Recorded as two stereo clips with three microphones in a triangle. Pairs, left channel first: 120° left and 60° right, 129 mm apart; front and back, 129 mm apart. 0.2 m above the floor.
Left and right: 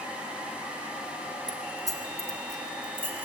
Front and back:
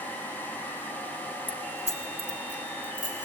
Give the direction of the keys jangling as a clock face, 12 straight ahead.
1 o'clock.